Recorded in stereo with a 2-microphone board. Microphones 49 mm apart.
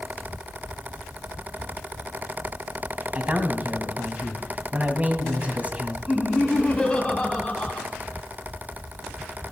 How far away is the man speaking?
About 1.3 m.